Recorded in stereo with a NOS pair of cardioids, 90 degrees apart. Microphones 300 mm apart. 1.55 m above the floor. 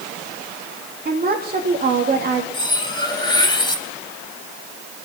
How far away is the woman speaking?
About 2 m.